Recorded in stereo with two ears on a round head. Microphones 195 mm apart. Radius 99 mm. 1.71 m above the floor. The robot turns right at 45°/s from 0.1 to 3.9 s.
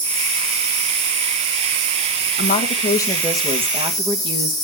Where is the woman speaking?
135° left, 1.6 m; by 4.5 s 155° right, 1.6 m.